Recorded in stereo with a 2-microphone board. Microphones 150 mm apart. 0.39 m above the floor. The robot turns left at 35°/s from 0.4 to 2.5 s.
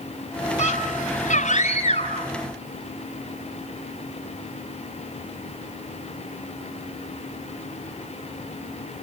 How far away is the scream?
About 3.5 m.